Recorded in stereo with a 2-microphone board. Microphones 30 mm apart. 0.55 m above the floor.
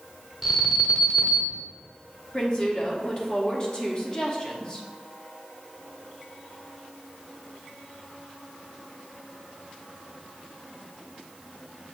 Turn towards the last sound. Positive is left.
turn(degrees=25)  # may be behind; listen again after turning